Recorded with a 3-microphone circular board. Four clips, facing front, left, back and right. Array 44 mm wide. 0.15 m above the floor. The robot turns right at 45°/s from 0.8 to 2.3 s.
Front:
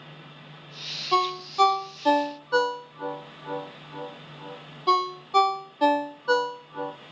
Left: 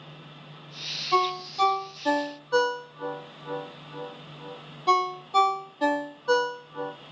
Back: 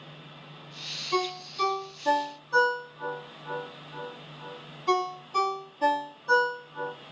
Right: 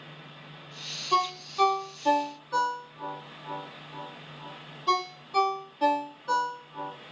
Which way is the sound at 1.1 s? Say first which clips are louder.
Left 2 dB, front 6 dB; 30° right.